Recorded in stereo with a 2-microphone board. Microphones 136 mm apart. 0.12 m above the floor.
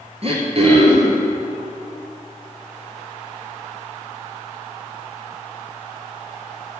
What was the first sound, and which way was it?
Throat clearing, 45° right (ahead or behind).